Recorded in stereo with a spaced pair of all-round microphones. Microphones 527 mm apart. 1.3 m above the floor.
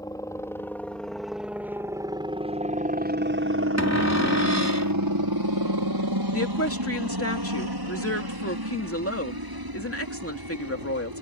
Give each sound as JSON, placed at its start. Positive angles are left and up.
{"t": 0.0, "sound": "a helicopter", "side_deg": 5}
{"t": 3.8, "sound": "a cupboard door", "side_deg": 30}
{"t": 6.3, "sound": "a woman speaking", "side_deg": 25}